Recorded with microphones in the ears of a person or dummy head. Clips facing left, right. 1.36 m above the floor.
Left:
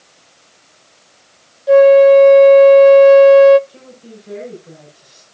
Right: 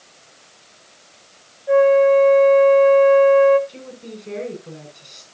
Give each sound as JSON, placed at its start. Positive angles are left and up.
{"t": 1.7, "sound": "a flute", "side_deg": 50, "distance_m": 0.6}
{"t": 3.7, "sound": "a woman speaking", "side_deg": -40, "distance_m": 7.0}